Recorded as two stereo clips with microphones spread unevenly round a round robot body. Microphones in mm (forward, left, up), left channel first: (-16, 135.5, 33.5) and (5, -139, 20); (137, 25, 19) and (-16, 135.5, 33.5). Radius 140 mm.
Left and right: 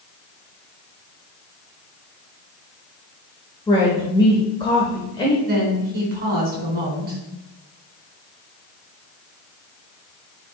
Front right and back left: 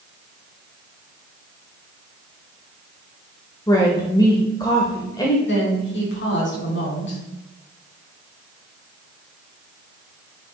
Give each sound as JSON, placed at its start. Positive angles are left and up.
{"t": 3.7, "sound": "a woman speaking", "azimuth_deg": 20, "distance_m": 1.2}
{"t": 5.5, "sound": "a woman speaking", "azimuth_deg": -30, "distance_m": 3.0}